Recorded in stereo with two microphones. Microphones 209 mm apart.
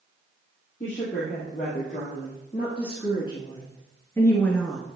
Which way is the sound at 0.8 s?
40° left (ahead or behind).